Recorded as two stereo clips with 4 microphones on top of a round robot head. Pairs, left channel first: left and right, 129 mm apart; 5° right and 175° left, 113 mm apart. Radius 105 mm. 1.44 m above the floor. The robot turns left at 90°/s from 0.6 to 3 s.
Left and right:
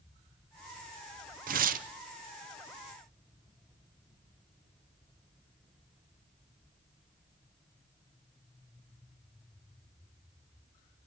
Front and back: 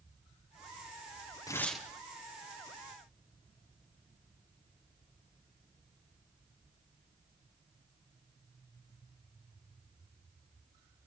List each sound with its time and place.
1.5 s tearing paper: 70° right, 0.7 m; by 1.9 s 105° right, 0.7 m